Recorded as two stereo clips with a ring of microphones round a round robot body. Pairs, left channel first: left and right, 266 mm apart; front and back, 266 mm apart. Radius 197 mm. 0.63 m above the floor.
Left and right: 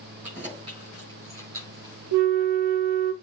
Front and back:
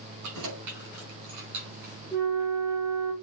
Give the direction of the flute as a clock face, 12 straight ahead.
3 o'clock.